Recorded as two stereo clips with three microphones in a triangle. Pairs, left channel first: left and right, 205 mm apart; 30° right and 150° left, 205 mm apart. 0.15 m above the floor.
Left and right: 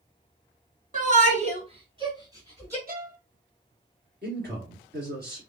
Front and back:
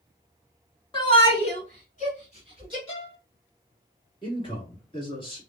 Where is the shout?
85° right, 1.8 m; by 2.8 s 15° right, 2.0 m.